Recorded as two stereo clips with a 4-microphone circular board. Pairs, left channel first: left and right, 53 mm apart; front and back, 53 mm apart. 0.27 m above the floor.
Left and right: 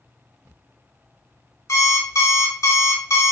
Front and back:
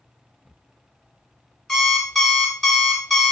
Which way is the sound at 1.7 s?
85° left.